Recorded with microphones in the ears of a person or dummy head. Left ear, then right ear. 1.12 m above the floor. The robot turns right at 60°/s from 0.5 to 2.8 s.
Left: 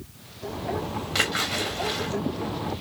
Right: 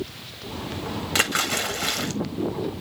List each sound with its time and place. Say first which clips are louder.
1.1 s a splash: right 2 dB; 160° right, 1.7 m; by 2.1 s 100° right, 1.7 m